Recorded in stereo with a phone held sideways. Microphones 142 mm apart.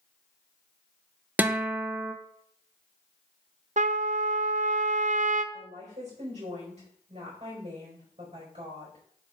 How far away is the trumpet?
About 0.5 m.